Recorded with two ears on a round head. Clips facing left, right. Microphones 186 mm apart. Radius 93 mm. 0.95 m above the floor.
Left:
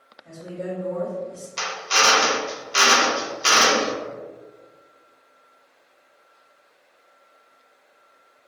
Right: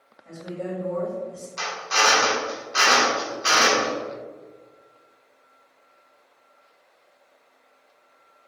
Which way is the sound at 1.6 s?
40° left (ahead or behind).